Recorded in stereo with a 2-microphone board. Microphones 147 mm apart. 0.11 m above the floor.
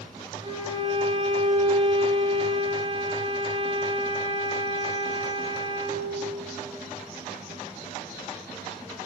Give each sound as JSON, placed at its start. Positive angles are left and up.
{"t": 0.4, "sound": "a violin", "side_deg": -35, "distance_m": 0.7}